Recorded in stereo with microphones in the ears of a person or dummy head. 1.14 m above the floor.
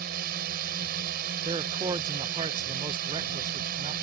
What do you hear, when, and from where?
0.0 s a drone: 55° right (ahead or behind)
1.4 s a man speaking: 30° right (ahead or behind)